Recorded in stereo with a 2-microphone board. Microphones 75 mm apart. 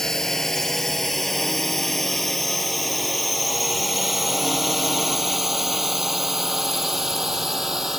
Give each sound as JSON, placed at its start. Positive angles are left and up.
{"t": 0.0, "sound": "a drone", "side_deg": 5}